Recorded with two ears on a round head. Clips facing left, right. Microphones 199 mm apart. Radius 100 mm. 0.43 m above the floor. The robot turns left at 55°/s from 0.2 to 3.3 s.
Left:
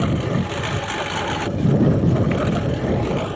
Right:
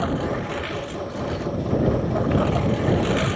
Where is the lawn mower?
145° left; by 3.4 s 25° right.